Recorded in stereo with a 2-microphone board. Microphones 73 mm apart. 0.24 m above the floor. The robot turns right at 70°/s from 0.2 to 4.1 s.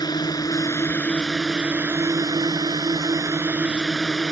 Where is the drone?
95° left; by 4.3 s 10° left.